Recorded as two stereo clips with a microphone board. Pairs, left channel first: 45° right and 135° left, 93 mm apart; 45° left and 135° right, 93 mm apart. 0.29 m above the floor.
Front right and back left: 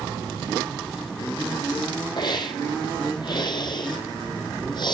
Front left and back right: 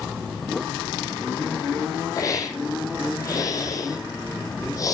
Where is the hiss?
5° right, 2 m.